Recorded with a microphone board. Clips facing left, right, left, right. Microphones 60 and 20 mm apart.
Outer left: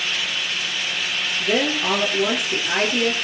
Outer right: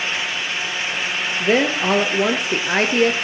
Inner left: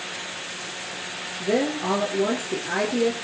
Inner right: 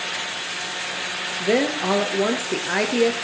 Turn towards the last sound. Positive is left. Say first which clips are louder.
# outer right 4 dB, inner right 2 dB
turn(degrees=-40)  # may be behind; listen again after turning